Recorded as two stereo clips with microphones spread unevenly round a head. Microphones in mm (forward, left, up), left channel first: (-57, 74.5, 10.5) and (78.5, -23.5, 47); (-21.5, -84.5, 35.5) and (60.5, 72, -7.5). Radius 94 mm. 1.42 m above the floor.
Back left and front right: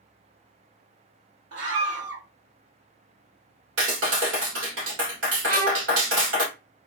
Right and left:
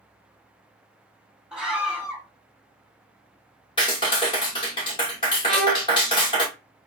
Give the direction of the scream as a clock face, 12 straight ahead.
1 o'clock.